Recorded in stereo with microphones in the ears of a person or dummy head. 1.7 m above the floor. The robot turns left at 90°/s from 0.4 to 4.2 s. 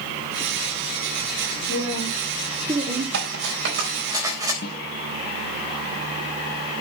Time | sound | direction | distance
1.7 | a woman speaking | 75° left | 4 m
3.1 | cutlery clinking | 65° right (ahead or behind) | 4.5 m
4.6 | a snare drum | 55° left (ahead or behind) | 1.2 m